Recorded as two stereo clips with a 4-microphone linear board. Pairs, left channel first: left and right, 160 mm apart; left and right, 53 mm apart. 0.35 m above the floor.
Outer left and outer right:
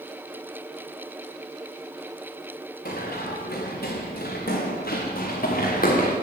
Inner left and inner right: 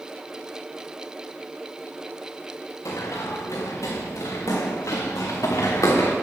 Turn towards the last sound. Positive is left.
turn(degrees=65)  # may be behind; listen again after turning